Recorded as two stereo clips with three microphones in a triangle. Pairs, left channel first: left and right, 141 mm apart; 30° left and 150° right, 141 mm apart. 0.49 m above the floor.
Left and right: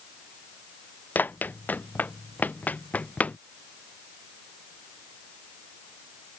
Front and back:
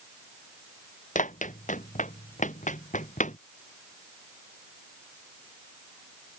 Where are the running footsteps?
15° left; by 3.4 s 10° left.